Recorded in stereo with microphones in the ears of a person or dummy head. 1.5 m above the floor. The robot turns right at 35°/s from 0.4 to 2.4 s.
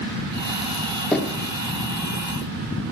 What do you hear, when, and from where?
1.1 s knocking: 5° left (ahead or behind), 1.3 m; by 1.4 s 15° left (ahead or behind), 1.3 m